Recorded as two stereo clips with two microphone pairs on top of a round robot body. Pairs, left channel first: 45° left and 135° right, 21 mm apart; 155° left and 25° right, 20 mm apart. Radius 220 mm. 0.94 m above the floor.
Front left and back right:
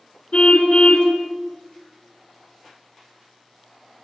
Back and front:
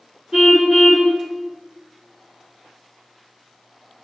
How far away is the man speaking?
I don't hear a man speaking.